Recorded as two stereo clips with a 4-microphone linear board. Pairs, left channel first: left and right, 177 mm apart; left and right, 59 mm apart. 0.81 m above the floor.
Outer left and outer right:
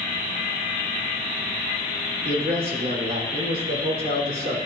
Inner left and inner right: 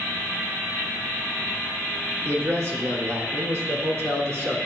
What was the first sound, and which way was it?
A man speaking, 55° right (ahead or behind).